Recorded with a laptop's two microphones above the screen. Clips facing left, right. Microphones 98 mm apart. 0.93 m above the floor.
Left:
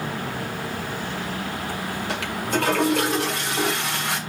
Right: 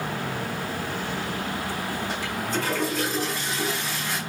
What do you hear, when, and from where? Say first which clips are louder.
2.1 s a toilet flushing: left 3 dB; 75° left (ahead or behind), 2 m